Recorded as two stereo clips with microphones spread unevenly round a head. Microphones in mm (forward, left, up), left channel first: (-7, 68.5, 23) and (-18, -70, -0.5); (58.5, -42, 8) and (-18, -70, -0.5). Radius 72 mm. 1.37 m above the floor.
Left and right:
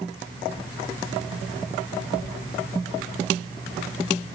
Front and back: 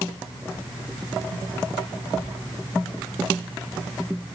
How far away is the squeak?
No squeak in this recording.